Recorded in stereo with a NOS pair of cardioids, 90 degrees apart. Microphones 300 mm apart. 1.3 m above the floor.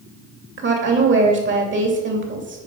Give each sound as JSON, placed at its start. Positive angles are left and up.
{"t": 0.6, "sound": "a woman speaking", "azimuth_deg": -40, "distance_m": 3.0}